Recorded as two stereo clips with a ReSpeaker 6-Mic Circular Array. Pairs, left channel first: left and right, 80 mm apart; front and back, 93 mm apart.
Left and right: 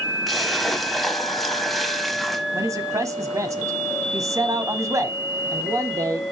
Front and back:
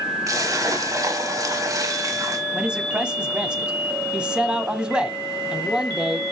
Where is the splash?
Straight behind, 1.2 m.